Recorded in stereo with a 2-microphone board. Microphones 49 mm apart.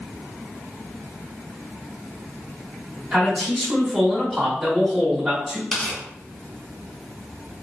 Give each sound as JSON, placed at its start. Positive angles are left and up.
{"t": 3.1, "sound": "a man speaking", "side_deg": -5, "distance_m": 1.1}
{"t": 5.7, "sound": "tearing paper", "side_deg": 10, "distance_m": 1.1}